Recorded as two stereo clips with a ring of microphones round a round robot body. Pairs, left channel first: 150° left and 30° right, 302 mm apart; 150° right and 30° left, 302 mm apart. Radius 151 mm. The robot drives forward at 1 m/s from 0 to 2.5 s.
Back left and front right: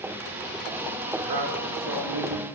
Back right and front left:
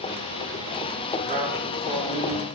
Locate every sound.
1.2 s a man speaking: 35° right, 5.5 m; by 2.5 s 45° right, 4.5 m